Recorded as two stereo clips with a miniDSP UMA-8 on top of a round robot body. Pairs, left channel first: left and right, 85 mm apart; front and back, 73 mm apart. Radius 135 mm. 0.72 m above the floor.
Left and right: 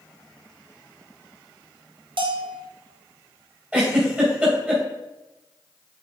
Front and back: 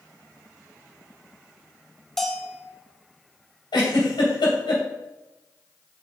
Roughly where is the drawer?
I don't hear a drawer.